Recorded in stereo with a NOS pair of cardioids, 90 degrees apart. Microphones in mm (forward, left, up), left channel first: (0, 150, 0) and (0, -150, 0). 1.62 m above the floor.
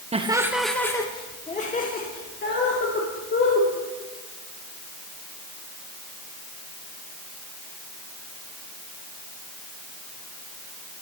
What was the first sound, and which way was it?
Laughter, 20° right.